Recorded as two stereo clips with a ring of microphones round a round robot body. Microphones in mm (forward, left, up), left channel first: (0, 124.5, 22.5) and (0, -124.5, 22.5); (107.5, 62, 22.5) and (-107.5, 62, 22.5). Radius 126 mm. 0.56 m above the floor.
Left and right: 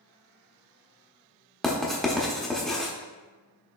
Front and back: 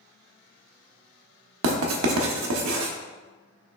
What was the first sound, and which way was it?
Writing, straight behind.